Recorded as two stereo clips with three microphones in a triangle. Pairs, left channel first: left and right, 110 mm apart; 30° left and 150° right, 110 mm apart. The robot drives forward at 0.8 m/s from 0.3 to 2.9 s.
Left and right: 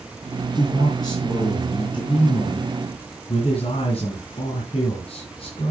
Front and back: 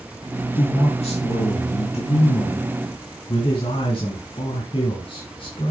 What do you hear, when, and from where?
0.6 s a man speaking: 35° left, 4 m; by 5.7 s 60° left, 3 m